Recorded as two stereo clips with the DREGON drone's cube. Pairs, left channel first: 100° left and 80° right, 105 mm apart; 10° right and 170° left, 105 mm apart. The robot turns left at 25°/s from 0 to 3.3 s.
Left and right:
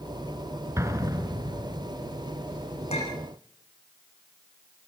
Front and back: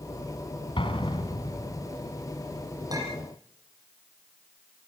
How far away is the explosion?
About 2.5 m.